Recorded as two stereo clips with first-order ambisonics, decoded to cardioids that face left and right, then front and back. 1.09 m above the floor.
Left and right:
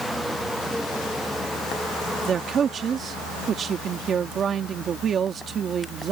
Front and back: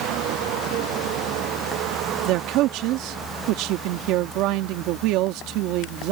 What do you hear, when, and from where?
2.3 s a man speaking: 155° right